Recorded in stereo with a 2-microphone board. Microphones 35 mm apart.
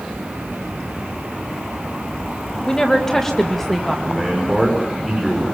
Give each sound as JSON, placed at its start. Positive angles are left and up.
{"t": 2.7, "sound": "a woman speaking", "side_deg": 25, "distance_m": 1.9}
{"t": 4.0, "sound": "a man speaking", "side_deg": 5, "distance_m": 6.0}